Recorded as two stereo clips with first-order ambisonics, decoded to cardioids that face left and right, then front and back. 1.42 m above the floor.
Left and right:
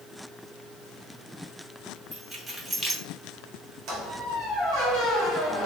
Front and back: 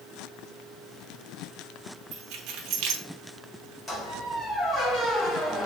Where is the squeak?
70° right, 1.2 m.